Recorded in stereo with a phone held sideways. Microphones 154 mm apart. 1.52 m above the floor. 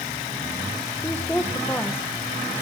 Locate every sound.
1.0 s a woman speaking: 15° left (ahead or behind), 1.5 m